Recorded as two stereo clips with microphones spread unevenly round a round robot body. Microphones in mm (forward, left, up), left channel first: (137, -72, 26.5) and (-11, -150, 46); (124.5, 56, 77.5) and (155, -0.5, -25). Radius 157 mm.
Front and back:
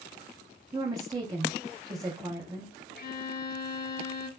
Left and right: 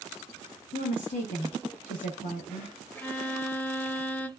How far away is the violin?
About 0.6 m.